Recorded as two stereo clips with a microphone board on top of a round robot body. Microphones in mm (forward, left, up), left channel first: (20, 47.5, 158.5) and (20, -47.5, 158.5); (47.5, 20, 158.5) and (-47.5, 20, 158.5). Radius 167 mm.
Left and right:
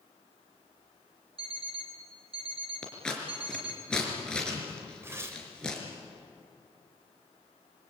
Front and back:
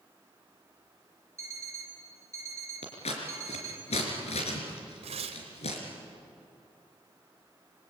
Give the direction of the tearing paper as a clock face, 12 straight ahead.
5 o'clock.